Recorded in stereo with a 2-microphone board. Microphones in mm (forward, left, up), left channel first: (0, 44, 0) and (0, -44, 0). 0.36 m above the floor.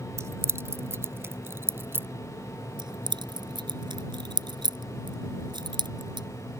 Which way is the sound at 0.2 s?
35° right (ahead or behind).